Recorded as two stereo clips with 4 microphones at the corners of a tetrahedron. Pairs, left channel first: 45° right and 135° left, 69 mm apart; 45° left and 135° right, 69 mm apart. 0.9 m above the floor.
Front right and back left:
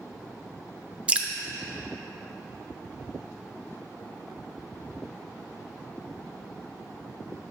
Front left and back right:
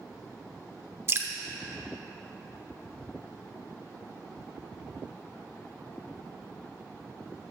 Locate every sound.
1.1 s dripping: 160° right, 0.6 m